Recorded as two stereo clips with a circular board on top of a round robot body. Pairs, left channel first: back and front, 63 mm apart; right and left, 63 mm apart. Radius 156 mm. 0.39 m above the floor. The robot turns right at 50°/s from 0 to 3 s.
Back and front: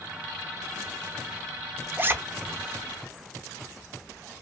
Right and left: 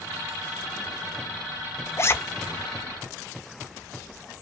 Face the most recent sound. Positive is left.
turn(degrees=-5)